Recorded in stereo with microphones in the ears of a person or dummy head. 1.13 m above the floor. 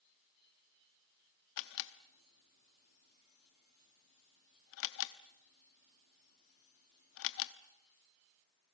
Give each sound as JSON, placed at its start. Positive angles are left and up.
{"t": 1.6, "sound": "a camera shutter", "side_deg": 70, "distance_m": 1.0}